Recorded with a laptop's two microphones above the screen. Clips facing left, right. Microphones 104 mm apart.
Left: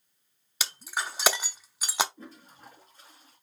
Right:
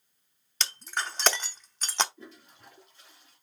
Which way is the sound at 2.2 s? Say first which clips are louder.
Left 2 dB; 40° left (ahead or behind).